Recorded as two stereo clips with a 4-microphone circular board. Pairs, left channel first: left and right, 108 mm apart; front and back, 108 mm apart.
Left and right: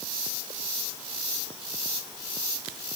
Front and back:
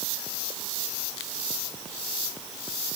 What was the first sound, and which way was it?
Only background noise.